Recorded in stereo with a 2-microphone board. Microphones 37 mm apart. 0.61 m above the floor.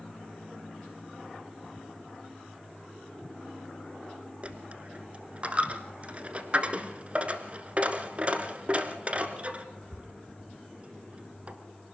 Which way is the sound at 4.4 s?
35° right (ahead or behind).